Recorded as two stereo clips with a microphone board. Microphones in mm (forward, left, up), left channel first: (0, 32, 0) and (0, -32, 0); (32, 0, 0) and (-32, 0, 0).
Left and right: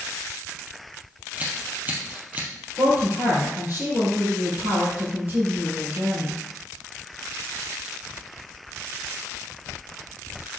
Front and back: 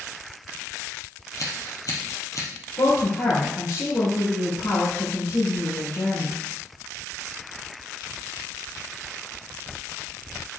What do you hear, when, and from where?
1.4 s scissors: 25° right, 2.5 m
2.8 s a woman speaking: 25° right, 4.5 m